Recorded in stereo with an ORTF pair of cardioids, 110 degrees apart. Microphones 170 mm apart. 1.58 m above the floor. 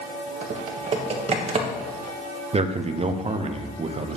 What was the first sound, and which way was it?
Typing on a keyboard, 40° right.